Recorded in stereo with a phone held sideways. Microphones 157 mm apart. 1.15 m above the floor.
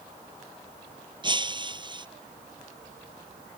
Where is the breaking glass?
30° right (ahead or behind).